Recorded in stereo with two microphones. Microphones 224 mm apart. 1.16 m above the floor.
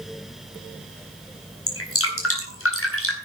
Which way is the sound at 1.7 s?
80° left.